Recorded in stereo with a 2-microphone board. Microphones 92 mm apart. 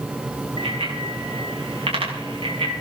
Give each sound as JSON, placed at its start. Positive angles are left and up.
{"t": 0.6, "sound": "a bicycle bell", "side_deg": -85, "distance_m": 5.0}